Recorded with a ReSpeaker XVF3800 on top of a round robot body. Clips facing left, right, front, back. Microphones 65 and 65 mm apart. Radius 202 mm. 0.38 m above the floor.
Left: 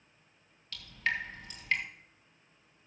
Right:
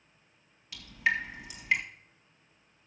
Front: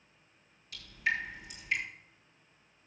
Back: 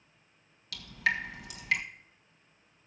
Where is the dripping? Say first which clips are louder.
Right 4 dB, back 3 dB; 170° right, 1.3 m.